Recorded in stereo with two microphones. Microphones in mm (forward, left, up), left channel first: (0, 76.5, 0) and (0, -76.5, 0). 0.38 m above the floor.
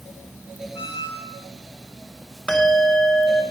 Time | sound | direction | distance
0.7 | a squeak | 40° left (ahead or behind) | 5.5 m
2.5 | a bell | 5° left (ahead or behind) | 1.9 m